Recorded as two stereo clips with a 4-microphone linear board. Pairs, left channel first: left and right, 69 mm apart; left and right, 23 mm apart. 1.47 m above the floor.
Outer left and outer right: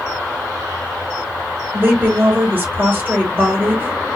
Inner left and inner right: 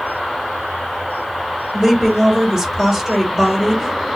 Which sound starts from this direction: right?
A woman speaking, at 1.7 s.